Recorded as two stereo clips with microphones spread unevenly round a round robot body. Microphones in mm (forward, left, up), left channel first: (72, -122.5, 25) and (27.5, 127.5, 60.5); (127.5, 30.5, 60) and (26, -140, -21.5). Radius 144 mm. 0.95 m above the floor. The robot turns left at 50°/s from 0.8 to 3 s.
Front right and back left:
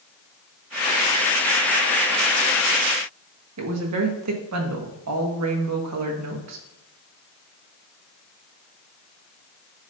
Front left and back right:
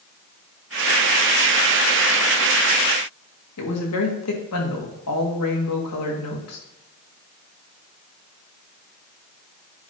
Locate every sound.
3.6 s a woman speaking: 80° left, 1.6 m